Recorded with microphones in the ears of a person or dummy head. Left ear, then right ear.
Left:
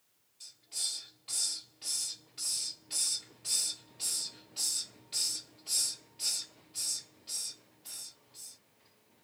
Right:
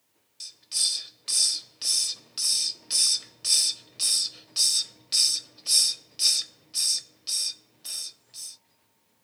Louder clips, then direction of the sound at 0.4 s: Right 10 dB; 55° right (ahead or behind).